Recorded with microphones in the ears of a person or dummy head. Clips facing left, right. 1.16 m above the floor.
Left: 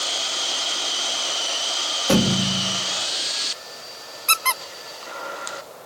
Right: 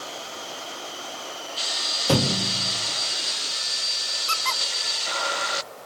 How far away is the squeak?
About 1.1 m.